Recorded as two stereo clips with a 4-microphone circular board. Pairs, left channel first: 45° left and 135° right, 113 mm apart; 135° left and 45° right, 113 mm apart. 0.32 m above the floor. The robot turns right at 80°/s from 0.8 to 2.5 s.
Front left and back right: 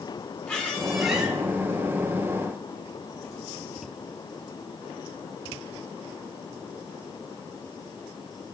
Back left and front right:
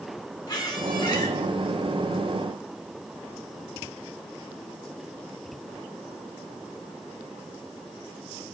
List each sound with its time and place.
0.5 s a squeak: 120° left, 1.1 m; by 1.3 s 160° left, 1.1 m